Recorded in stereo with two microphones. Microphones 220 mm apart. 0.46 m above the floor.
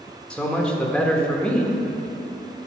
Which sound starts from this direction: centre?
A man speaking, at 0.3 s.